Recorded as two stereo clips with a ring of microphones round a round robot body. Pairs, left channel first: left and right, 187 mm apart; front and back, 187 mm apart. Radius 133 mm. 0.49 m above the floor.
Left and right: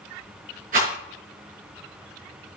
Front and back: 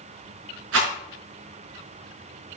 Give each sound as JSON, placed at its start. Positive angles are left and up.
{"t": 0.7, "sound": "a rattle", "azimuth_deg": -150, "distance_m": 4.0}